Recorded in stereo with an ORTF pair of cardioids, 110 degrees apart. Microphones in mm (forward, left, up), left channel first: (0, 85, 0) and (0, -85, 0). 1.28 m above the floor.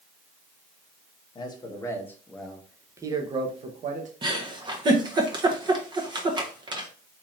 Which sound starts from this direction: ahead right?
A giggle, at 4.2 s.